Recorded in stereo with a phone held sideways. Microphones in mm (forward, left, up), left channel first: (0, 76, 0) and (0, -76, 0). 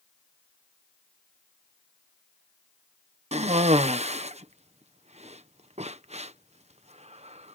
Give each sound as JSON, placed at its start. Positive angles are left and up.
{"t": 3.3, "sound": "a cough", "side_deg": -45}